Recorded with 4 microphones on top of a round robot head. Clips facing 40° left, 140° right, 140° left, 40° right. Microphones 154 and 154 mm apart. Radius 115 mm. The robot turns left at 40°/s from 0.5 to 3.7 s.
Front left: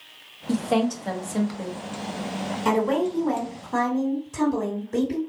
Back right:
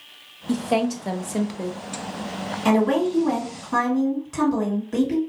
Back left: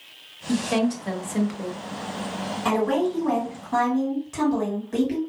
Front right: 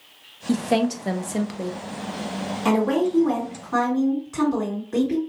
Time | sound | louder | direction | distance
0.5 | a woman speaking | back right 1 dB, front right 2 dB | 40° right | 0.6 m
2.6 | a woman speaking | back right 3 dB, front right 2 dB | 110° right | 2.0 m